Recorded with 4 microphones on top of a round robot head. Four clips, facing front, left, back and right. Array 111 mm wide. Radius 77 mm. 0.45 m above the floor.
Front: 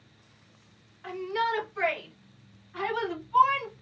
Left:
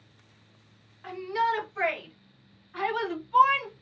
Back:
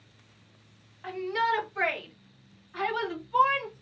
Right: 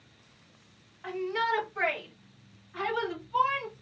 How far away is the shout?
About 1.6 m.